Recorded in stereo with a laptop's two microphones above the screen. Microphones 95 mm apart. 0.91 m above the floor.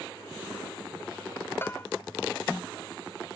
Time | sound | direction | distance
1.6 | a bell | 25° left (ahead or behind) | ?